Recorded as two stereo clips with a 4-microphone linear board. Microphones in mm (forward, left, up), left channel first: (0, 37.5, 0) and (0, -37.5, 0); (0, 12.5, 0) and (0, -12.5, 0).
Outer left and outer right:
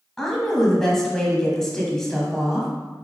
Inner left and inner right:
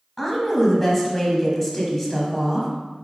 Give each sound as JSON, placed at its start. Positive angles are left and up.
{"t": 0.2, "sound": "a woman speaking", "side_deg": 5, "distance_m": 0.9}